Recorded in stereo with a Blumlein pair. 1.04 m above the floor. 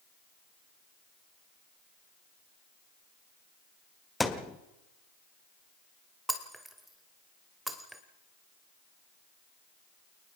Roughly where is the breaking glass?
Ahead.